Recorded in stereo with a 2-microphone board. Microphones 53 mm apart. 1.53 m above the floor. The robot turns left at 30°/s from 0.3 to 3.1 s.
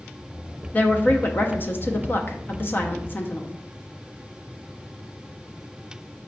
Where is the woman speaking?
130° left, 0.6 m; by 3.5 s 60° left, 0.6 m.